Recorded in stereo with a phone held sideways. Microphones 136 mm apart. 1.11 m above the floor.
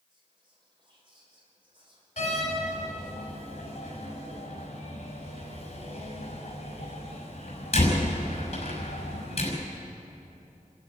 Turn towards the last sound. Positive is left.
turn(degrees=50)  # may be behind; listen again after turning